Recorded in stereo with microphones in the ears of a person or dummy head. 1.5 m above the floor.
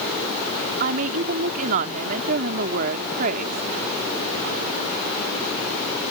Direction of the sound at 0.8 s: 45° right (ahead or behind).